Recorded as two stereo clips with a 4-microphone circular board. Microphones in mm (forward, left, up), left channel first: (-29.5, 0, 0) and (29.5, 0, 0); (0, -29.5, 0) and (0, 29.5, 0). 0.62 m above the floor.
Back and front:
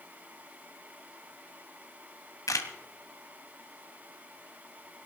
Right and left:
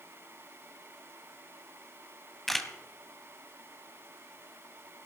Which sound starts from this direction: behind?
A camera shutter, at 2.5 s.